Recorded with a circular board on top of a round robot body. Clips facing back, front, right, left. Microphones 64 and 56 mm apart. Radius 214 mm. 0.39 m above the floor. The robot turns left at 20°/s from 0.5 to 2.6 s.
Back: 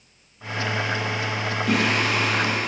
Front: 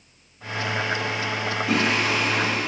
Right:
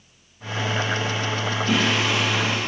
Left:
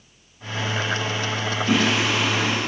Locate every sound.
1.7 s singing: 170° left, 4 m; by 2.7 s 155° left, 4 m